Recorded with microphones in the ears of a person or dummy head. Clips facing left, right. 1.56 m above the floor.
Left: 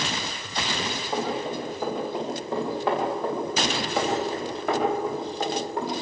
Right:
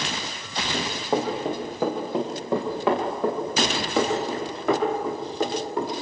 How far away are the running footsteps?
About 7 m.